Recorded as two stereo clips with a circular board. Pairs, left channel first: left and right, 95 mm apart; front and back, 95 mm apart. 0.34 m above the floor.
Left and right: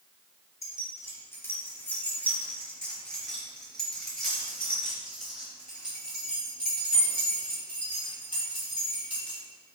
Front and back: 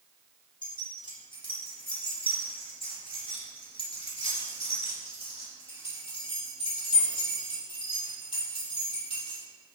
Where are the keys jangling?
35° left, 3 m; by 9.4 s 20° right, 6 m.